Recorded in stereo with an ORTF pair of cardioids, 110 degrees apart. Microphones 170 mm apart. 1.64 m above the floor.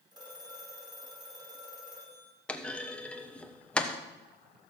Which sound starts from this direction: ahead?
A clunk, at 2.5 s.